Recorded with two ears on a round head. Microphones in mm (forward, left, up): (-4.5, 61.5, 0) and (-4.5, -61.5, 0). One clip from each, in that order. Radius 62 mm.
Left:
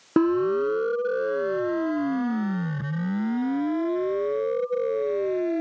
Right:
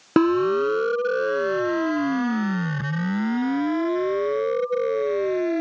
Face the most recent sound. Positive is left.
turn(degrees=-30)  # may be behind; listen again after turning